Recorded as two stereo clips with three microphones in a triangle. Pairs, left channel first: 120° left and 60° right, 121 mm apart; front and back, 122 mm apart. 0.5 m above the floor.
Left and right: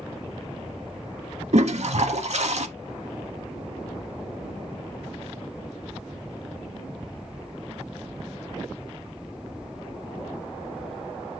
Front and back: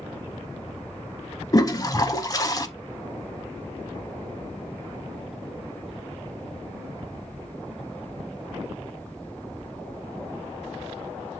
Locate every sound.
1.5 s a toilet flushing: 60° right, 0.6 m